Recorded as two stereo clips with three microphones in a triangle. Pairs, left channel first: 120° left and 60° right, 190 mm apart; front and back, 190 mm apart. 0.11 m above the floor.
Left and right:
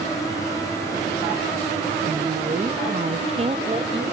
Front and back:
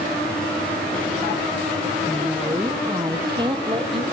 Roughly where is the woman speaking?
Right.